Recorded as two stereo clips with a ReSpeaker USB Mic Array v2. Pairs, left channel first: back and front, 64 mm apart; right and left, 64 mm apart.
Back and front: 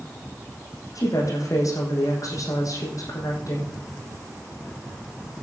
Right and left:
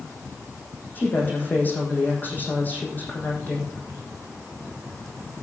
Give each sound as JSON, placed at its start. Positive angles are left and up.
{"t": 0.9, "sound": "a woman speaking", "azimuth_deg": -150, "distance_m": 6.0}